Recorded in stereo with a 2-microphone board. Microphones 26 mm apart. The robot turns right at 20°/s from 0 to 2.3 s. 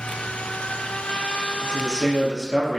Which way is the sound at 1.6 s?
35° left (ahead or behind).